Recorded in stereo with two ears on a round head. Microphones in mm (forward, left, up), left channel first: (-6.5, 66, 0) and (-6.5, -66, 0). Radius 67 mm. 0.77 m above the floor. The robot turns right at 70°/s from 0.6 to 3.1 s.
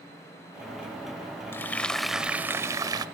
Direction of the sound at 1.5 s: 15° left (ahead or behind).